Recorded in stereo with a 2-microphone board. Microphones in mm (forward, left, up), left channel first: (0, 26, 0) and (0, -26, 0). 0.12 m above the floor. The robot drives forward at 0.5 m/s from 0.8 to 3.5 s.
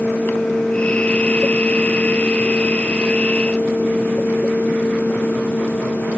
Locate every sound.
Only background noise.